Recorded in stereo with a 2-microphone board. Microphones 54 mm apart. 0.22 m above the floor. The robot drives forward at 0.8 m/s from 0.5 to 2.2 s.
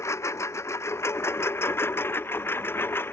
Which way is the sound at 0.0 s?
60° left (ahead or behind).